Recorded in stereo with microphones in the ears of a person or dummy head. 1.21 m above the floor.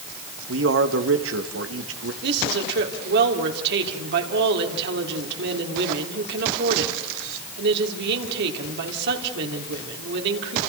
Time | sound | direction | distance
0.5 | a man speaking | 70° right (ahead or behind) | 1.9 m
2.2 | a woman speaking | 65° right (ahead or behind) | 3 m